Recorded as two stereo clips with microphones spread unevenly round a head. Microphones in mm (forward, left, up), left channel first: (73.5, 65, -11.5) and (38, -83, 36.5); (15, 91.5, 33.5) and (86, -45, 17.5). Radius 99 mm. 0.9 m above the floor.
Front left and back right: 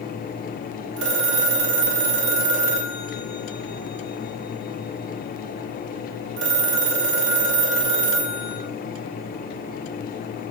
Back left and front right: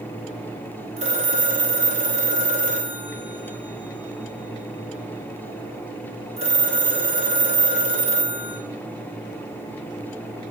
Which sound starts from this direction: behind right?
A phone ringing, at 1.0 s.